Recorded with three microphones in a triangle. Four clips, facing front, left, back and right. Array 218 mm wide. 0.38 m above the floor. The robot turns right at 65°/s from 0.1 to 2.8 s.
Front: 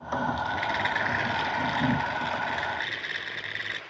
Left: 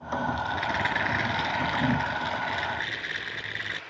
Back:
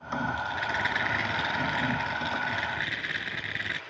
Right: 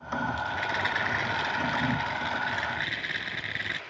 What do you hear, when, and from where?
0.3 s a rattle: 55° left, 7 m; by 3.8 s 145° right, 7 m